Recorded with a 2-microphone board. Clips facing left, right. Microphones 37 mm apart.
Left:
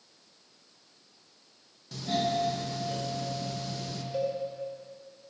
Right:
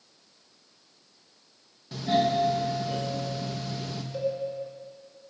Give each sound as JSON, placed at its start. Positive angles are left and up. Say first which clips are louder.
{"t": 1.9, "sound": "a doorbell", "louder": "right 5 dB", "side_deg": -15, "distance_m": 1.0}
{"t": 4.1, "sound": "a cowbell", "louder": "right 1 dB", "side_deg": 20, "distance_m": 4.0}